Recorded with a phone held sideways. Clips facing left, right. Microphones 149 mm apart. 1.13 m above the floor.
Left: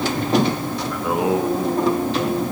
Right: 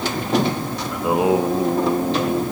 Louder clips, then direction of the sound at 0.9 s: Right 3 dB; 20° right (ahead or behind).